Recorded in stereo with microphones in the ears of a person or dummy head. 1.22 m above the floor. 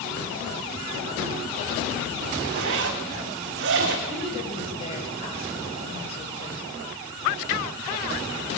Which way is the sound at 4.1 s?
30° left (ahead or behind).